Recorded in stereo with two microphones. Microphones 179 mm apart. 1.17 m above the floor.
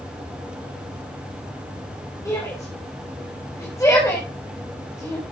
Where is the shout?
15° left (ahead or behind), 4.5 m.